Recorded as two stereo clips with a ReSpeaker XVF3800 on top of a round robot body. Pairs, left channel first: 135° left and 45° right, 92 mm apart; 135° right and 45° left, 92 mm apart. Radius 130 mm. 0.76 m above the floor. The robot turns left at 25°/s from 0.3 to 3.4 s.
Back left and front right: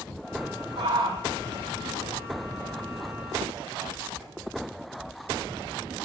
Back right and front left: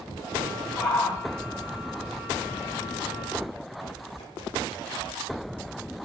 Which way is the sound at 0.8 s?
55° right.